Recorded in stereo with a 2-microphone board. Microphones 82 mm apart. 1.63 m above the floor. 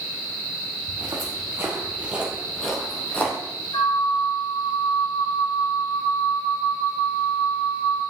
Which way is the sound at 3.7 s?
60° left (ahead or behind).